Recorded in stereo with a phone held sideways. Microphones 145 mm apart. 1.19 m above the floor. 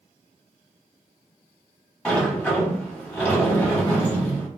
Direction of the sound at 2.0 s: 10° left (ahead or behind).